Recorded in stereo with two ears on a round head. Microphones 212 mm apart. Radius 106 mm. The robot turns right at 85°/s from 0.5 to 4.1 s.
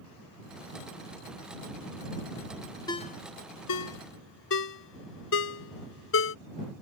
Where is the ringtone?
15° left (ahead or behind); by 6.3 s 60° left (ahead or behind).